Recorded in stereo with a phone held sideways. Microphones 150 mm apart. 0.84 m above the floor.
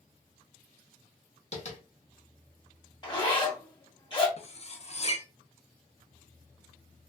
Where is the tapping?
45° left (ahead or behind), 1.1 m.